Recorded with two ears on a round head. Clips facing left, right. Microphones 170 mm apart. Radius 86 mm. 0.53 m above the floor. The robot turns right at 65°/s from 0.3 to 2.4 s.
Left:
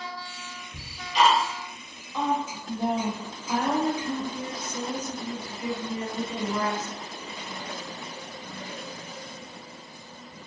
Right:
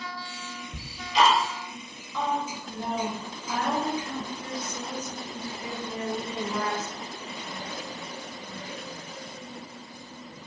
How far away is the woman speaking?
About 1.0 m.